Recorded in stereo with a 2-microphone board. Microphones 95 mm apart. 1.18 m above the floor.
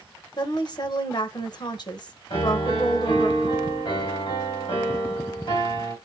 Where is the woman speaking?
50° left (ahead or behind), 1.1 m.